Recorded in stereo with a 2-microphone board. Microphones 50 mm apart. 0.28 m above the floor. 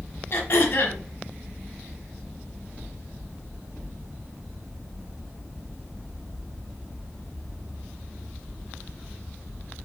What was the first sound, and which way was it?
Throat clearing, 50° left (ahead or behind).